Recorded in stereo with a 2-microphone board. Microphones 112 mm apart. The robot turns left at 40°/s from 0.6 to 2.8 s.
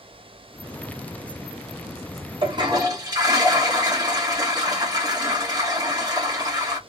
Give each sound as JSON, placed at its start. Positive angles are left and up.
{"t": 2.4, "sound": "a toilet flushing", "side_deg": -45, "distance_m": 1.0}